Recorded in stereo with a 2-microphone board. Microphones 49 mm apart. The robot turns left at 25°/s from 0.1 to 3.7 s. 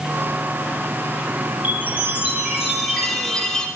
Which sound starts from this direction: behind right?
A chime, at 1.6 s.